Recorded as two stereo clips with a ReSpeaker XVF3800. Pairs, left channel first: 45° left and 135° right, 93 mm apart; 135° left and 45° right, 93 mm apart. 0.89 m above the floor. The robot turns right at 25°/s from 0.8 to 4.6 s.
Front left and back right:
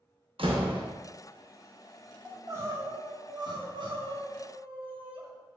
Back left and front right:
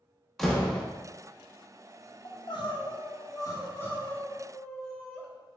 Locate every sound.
0.4 s a door slam: 135° right, 0.7 m
2.2 s crying: 160° left, 0.6 m; by 5.2 s 140° right, 0.6 m